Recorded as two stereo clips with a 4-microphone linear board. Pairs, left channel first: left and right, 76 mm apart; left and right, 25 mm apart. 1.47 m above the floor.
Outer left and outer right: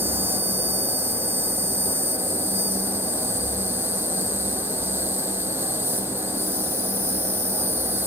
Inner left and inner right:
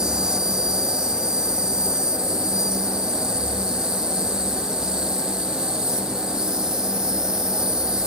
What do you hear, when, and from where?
0.0 s an insect: 35° right (ahead or behind)